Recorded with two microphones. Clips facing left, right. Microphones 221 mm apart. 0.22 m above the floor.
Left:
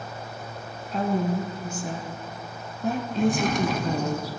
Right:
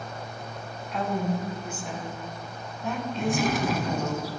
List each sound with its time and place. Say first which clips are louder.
0.9 s a woman speaking: left 3 dB; 40° left (ahead or behind), 1.9 m; by 4.2 s 35° left (ahead or behind), 2 m
3.2 s a drawer: left 3 dB; 5° right (ahead or behind), 0.9 m